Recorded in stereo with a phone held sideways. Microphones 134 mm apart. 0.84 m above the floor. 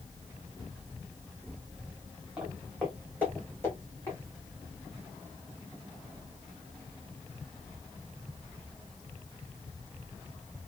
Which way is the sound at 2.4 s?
5° right (ahead or behind).